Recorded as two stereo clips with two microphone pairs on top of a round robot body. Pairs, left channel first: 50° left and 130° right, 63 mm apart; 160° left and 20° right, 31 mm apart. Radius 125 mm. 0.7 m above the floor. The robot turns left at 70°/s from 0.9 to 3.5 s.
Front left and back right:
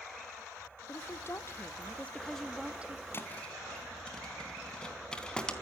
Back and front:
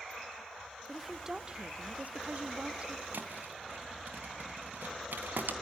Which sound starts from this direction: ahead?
A thud, at 3.1 s.